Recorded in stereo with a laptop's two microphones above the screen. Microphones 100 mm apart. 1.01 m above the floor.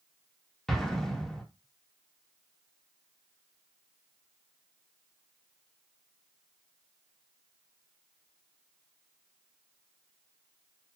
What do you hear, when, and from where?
0.7 s an explosion: 5° left (ahead or behind), 0.9 m